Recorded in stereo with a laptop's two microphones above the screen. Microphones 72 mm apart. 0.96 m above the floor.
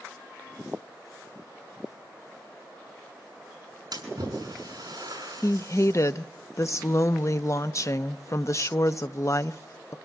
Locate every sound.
3.9 s a splash: 65° right (ahead or behind), 8 m
5.4 s a woman speaking: 45° left (ahead or behind), 0.8 m